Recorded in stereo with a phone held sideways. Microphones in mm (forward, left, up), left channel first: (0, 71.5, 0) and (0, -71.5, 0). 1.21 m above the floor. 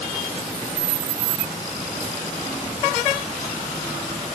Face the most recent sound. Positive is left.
No sound to turn to.